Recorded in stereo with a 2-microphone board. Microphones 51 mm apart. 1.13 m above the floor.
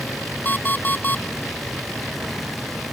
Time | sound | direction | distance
0.5 | an alarm clock | 35° left (ahead or behind) | ?